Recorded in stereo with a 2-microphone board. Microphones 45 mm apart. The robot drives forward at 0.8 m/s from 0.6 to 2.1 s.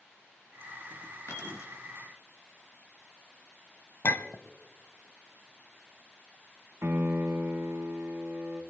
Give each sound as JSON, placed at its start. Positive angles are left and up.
{"t": 1.3, "sound": "keys jangling", "side_deg": 75, "distance_m": 4.0}
{"t": 4.0, "sound": "a clink", "side_deg": 50, "distance_m": 0.9}
{"t": 6.8, "sound": "a piano", "side_deg": -60, "distance_m": 2.5}